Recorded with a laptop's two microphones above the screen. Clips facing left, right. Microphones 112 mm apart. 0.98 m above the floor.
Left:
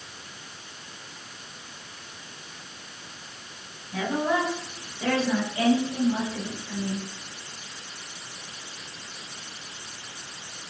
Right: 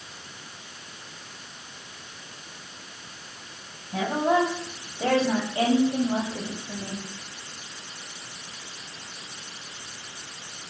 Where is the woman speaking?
35° right (ahead or behind), 7.5 m; by 7.1 s 40° right (ahead or behind), 6 m.